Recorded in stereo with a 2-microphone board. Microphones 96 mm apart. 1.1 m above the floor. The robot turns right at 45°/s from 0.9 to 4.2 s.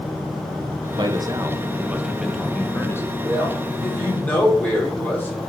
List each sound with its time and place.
1.0 s a man speaking: 60° right, 1.2 m; by 3.1 s 35° left, 1.2 m
3.2 s a man speaking: 25° right, 4.5 m; by 5.4 s 20° left, 4.5 m